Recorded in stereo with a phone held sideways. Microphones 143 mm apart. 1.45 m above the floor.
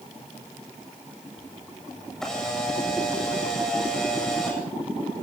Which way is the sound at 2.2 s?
5° left (ahead or behind).